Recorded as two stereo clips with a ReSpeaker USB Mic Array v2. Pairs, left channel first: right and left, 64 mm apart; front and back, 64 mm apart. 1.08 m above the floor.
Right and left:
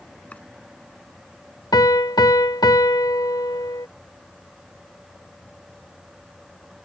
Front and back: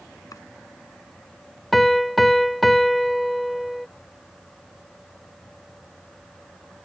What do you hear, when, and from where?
0.3 s chopping: 20° right
1.7 s a piano: 90° right